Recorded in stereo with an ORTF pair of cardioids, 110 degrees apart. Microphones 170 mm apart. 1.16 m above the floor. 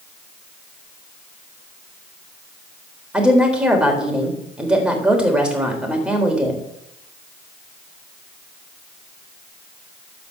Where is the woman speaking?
5° right, 4 m.